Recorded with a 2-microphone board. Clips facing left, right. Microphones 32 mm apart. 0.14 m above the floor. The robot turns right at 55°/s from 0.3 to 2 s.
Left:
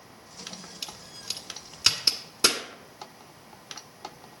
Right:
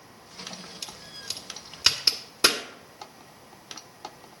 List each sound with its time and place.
0.8 s a crack: 15° left (ahead or behind), 1.2 m; by 2.6 s 10° right (ahead or behind), 1.2 m